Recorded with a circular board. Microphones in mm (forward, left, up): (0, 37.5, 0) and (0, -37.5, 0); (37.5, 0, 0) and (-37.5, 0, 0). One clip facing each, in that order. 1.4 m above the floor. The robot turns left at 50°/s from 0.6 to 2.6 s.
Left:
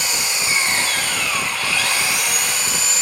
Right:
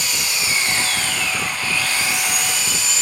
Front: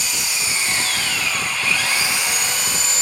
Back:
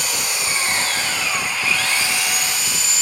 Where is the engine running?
145° left, 3 m; by 3.0 s 45° left, 3 m.